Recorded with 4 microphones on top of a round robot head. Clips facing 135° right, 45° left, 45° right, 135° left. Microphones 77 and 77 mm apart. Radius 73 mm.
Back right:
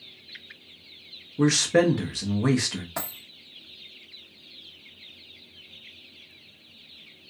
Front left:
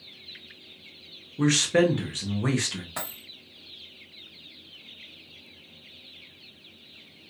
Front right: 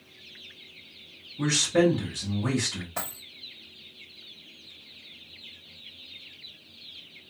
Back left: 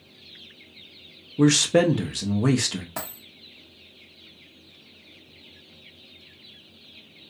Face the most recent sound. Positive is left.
turn(degrees=155)